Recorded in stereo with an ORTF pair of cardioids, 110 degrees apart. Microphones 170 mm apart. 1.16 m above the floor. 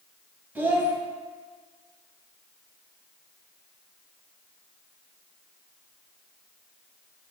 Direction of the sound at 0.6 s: 10° right.